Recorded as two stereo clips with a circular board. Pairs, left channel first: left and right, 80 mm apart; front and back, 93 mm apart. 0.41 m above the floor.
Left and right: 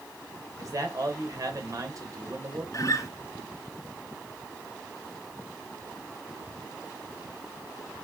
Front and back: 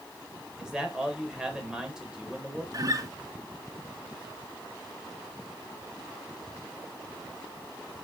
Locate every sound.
0.6 s a man speaking: 100° right, 1.9 m
2.7 s a guitar: 135° left, 1.1 m